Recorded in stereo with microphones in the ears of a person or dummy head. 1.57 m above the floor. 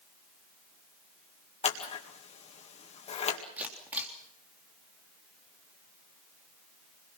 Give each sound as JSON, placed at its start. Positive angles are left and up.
{"t": 1.6, "sound": "scissors", "side_deg": 30, "distance_m": 2.0}
{"t": 3.6, "sound": "a camera shutter", "side_deg": -5, "distance_m": 3.5}